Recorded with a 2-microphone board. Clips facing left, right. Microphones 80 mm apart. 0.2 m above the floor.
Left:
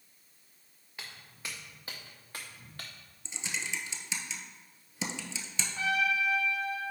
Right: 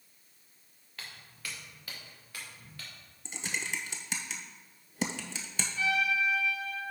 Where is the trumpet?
45° left (ahead or behind), 1.0 m.